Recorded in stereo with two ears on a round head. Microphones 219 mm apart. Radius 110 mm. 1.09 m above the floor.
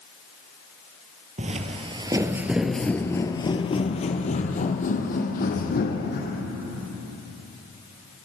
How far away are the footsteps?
About 1.3 m.